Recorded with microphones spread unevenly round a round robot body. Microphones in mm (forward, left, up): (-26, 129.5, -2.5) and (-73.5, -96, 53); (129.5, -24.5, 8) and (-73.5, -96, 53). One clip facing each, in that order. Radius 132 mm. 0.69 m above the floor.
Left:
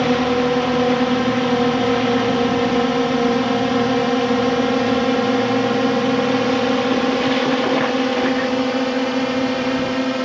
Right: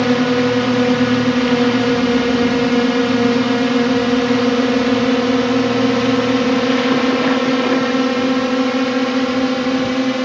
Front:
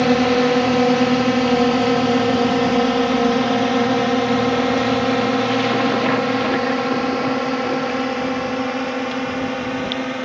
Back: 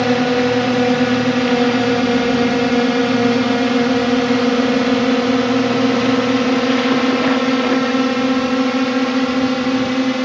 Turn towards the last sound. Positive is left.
turn(degrees=-170)